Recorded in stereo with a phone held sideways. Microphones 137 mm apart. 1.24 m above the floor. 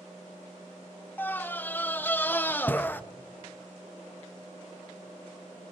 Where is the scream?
15° left (ahead or behind), 0.6 m.